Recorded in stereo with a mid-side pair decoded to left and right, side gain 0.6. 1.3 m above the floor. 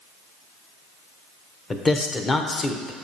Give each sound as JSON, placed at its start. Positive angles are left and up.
{"t": 1.7, "sound": "a man speaking", "azimuth_deg": 30, "distance_m": 0.8}